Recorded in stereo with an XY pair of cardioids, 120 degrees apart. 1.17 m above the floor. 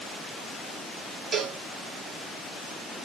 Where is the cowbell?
35° right, 1.7 m.